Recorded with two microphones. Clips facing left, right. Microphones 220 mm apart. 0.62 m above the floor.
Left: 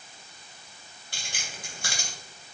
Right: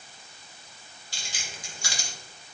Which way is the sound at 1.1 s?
55° left (ahead or behind).